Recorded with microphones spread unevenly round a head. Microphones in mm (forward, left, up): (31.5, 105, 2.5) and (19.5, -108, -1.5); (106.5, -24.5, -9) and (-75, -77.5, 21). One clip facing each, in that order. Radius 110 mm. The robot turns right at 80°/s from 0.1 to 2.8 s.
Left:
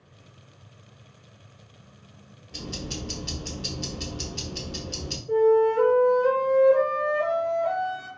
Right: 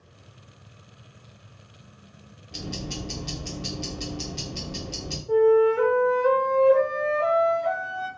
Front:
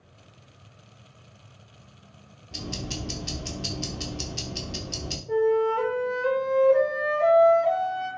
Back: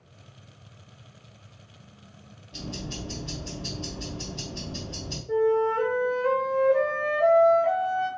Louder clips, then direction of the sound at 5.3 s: Right 1 dB, front 1 dB; straight ahead.